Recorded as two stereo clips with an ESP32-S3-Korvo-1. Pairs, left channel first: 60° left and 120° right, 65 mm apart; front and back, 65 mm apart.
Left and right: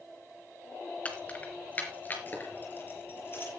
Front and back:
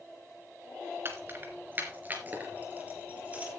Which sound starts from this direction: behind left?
Keys jangling, at 1.1 s.